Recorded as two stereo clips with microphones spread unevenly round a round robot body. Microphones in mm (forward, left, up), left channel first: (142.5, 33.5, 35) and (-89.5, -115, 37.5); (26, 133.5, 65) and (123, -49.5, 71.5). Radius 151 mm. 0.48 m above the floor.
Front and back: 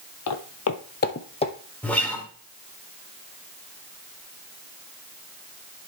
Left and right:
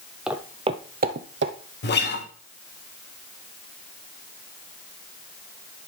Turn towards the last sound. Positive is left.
turn(degrees=115)